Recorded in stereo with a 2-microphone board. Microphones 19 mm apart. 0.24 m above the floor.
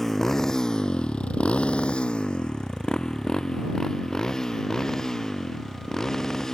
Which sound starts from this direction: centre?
A motorcycle, at 0.0 s.